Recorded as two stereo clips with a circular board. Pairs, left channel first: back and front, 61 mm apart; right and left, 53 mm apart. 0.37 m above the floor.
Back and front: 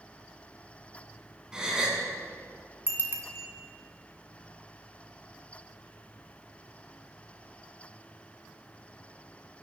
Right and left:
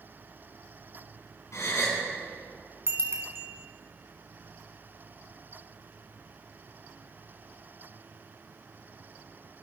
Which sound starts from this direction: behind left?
A bicycle bell, at 2.9 s.